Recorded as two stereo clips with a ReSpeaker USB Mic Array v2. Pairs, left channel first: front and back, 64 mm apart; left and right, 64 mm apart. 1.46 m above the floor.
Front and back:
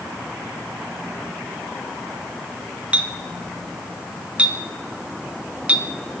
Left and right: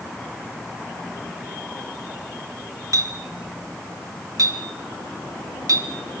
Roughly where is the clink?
Right.